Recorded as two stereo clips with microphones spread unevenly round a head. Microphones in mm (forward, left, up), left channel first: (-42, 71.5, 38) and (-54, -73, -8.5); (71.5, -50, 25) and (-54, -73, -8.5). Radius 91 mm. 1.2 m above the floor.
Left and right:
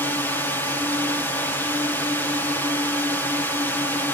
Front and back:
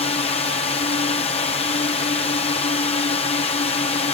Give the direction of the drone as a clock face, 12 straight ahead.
12 o'clock.